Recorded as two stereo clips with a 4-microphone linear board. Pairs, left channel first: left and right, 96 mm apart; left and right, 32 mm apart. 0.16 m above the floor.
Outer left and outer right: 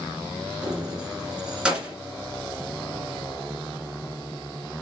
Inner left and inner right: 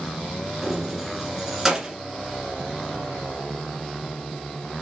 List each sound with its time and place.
0.6 s keys jangling: 10° right (ahead or behind), 1.6 m